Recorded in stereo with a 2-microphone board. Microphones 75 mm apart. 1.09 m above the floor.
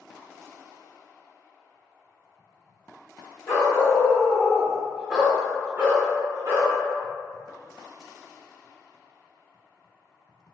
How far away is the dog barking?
About 1.1 m.